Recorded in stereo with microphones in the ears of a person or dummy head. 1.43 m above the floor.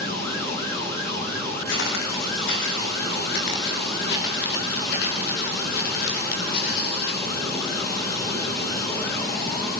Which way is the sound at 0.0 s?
15° left (ahead or behind).